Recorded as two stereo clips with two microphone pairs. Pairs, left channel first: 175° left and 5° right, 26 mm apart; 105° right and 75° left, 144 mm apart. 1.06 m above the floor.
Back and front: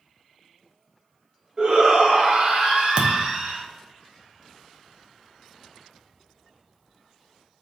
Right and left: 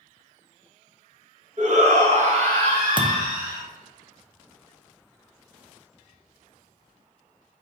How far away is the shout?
About 1.3 m.